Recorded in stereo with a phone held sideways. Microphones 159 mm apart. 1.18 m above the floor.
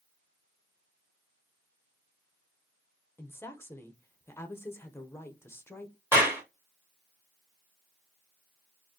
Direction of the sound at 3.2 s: 15° left (ahead or behind).